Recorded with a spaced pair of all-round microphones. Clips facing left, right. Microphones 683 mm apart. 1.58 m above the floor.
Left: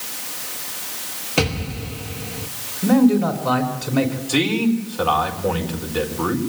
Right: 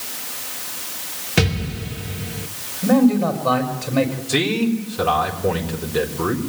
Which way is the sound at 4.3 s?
50° right (ahead or behind).